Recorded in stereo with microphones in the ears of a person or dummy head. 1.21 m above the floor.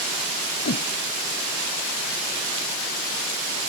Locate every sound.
0.7 s a whoosh: 45° left (ahead or behind)